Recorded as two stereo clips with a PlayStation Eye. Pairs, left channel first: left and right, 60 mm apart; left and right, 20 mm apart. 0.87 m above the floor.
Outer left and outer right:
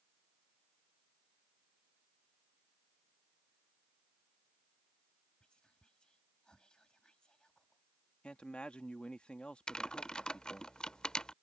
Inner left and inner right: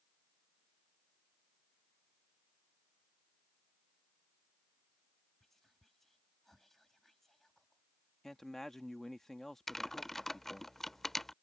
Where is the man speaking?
15° left (ahead or behind).